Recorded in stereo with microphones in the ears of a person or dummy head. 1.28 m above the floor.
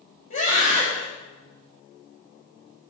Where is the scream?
45° left (ahead or behind), 7 m.